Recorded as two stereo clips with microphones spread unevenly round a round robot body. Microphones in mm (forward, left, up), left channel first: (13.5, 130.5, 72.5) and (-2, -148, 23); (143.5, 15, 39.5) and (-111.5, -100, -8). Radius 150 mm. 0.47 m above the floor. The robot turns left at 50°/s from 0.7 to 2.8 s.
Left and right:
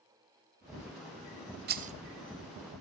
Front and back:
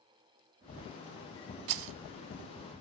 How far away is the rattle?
About 0.7 m.